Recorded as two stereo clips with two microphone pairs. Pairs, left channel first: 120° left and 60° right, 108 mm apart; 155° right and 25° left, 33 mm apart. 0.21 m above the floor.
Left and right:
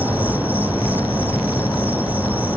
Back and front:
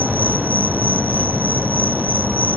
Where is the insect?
15° left.